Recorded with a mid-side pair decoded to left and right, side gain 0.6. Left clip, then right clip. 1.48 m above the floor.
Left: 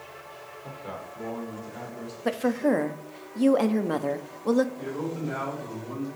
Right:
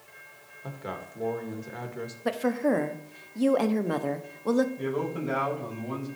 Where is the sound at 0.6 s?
35° right, 2 m.